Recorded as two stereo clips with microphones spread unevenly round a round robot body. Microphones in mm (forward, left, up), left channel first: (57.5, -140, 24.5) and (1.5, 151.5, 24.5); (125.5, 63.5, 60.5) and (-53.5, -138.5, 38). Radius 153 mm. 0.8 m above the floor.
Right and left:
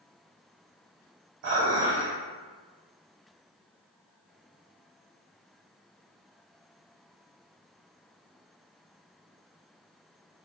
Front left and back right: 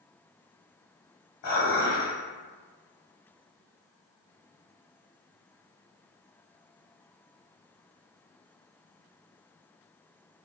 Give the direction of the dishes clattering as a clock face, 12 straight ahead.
9 o'clock.